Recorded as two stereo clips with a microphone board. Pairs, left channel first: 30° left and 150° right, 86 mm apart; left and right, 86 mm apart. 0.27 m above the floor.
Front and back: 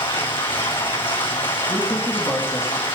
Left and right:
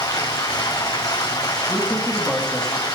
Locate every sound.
0.0 s running water: 45° left, 2.5 m
1.7 s a man speaking: 15° left, 1.9 m